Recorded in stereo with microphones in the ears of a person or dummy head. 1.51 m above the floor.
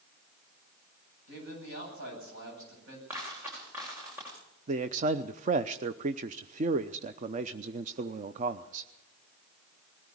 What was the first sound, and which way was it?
A man speaking, 70° right (ahead or behind).